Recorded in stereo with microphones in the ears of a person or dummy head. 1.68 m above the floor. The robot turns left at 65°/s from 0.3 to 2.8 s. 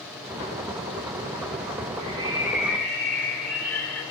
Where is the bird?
135° right, 5.5 m; by 4.0 s 170° left, 5.5 m.